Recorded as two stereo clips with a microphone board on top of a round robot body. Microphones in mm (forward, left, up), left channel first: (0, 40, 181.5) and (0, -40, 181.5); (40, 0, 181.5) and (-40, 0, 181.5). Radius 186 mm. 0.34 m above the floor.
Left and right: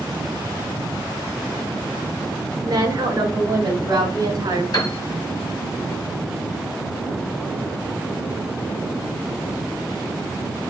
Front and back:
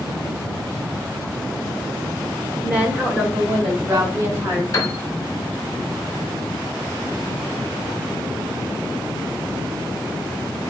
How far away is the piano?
About 1.7 m.